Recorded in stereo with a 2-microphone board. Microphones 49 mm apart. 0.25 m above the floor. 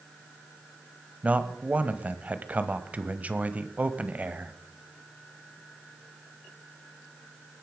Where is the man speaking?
30° right (ahead or behind), 1.0 m.